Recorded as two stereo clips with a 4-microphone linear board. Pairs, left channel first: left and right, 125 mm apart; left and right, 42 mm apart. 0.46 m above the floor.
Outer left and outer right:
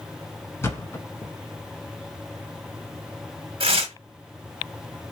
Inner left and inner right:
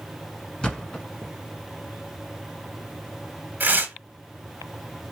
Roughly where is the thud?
Left.